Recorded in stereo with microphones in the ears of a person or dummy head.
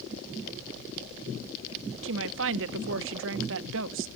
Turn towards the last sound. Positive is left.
turn(degrees=-65)  # may be behind; listen again after turning